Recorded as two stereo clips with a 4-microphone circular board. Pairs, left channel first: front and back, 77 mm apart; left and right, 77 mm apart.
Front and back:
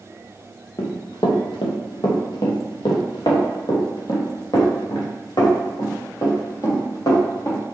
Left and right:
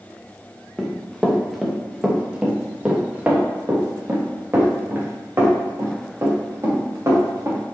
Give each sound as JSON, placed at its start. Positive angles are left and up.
{"t": 0.8, "sound": "running footsteps", "azimuth_deg": 10, "distance_m": 1.8}